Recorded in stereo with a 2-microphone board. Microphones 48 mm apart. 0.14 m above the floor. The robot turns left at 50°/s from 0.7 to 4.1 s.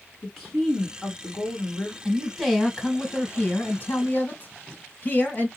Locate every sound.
0.2 s a woman speaking: 175° left, 1.7 m; by 1.9 s 110° left, 1.7 m
2.0 s a man speaking: 160° right, 1.3 m; by 5.5 s 95° left, 1.3 m